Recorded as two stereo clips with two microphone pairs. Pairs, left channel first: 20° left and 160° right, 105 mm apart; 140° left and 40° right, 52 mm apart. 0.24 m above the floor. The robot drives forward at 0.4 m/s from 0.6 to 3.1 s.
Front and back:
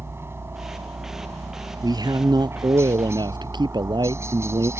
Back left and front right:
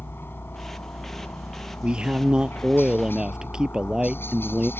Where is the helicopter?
145° left.